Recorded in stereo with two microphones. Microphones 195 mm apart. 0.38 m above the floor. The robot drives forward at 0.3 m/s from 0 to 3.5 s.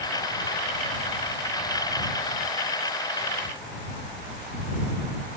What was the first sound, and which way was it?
Only background noise.